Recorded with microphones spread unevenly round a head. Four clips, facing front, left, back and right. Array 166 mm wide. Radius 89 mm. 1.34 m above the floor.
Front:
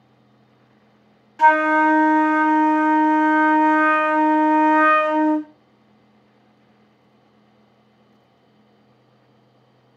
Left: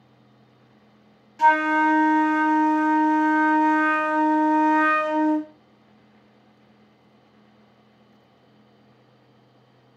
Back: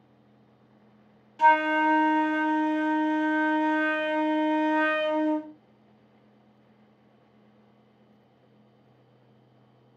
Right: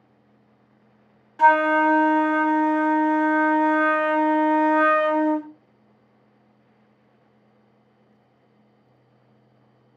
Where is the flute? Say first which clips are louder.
Right 2 dB, front 6 dB; 45° right, 0.7 m.